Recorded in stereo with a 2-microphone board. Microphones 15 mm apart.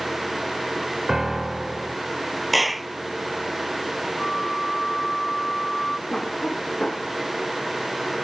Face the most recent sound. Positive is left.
turn(degrees=85)